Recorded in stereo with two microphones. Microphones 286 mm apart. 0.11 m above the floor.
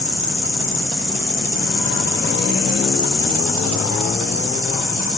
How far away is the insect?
About 1.9 m.